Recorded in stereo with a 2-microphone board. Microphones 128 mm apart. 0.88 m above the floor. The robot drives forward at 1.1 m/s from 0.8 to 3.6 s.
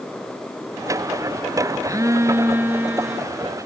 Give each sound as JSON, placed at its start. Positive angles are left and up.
{"t": 1.8, "sound": "a phone buzzing", "side_deg": -25, "distance_m": 0.7}